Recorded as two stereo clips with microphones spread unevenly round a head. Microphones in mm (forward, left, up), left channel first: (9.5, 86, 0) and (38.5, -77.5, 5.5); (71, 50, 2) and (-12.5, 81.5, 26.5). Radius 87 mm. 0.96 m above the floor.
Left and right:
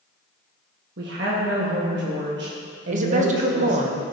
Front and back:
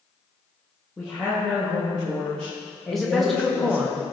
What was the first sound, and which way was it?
A woman speaking, 100° right.